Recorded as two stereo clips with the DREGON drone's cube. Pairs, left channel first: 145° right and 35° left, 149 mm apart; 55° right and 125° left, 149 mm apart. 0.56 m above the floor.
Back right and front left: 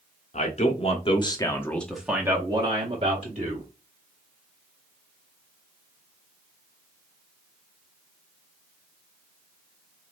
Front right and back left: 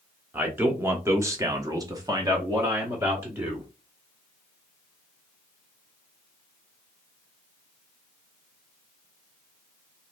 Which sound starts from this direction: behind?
A man speaking, at 0.3 s.